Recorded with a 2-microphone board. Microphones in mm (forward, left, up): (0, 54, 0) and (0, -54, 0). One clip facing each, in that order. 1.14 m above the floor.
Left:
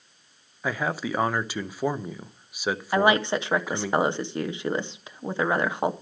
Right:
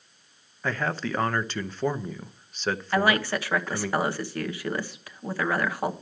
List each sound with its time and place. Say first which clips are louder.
0.6 s a man speaking: left 1 dB; 10° left (ahead or behind), 0.6 m
2.9 s a woman speaking: left 3 dB; 20° left (ahead or behind), 0.8 m